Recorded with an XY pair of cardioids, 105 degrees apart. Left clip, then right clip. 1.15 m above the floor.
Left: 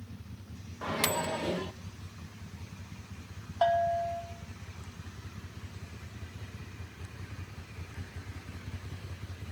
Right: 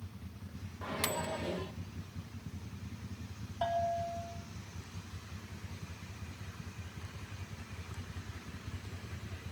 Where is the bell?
65° left, 4 m.